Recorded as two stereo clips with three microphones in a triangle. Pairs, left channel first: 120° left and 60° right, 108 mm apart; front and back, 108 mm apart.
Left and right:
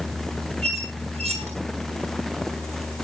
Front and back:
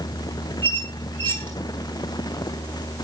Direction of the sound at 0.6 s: 70° right.